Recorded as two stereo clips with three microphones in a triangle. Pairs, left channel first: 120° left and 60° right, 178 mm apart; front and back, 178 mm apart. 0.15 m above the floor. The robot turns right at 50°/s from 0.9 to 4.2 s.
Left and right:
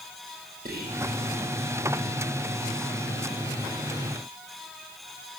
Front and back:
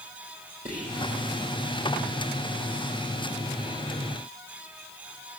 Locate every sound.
0.7 s whispering: 35° right, 3.5 m; by 1.0 s 30° right, 3.5 m